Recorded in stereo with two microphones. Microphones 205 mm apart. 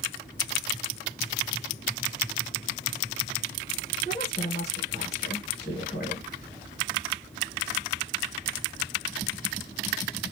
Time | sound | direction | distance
4.0 | a woman speaking | 50° left (ahead or behind) | 2.5 m